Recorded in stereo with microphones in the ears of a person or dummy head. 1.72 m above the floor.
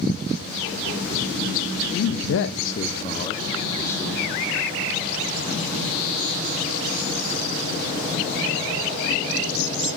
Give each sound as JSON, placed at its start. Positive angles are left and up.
{"t": 1.9, "sound": "a man speaking", "side_deg": 60, "distance_m": 0.7}